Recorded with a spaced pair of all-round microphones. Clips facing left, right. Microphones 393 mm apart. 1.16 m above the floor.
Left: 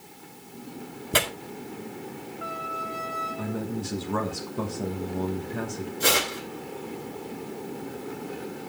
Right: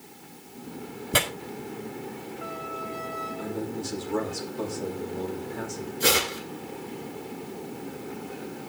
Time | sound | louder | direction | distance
1.1 | tearing paper | left 1 dB | centre (ahead or behind) | 1.8 m
3.4 | a man speaking | left 1 dB | 70° left (ahead or behind) | 1.6 m
6.0 | tearing paper | right 2 dB | centre (ahead or behind) | 3 m